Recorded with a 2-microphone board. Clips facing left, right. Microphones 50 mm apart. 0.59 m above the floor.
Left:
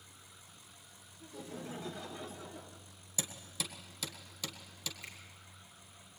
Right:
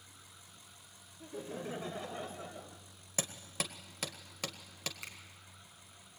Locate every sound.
1.2 s laughter: 35° right (ahead or behind), 2 m; by 2.8 s 40° right (ahead or behind), 3 m
3.2 s hammering: 45° right (ahead or behind), 1.9 m
5.0 s a finger snap: 85° right, 4 m